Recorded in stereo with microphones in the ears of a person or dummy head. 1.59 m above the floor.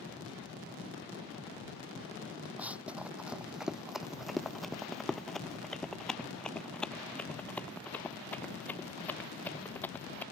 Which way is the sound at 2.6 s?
5° right (ahead or behind).